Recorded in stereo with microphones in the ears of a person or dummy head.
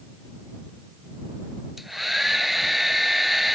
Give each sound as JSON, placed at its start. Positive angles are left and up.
{"t": 1.8, "sound": "a hair dryer", "side_deg": 0}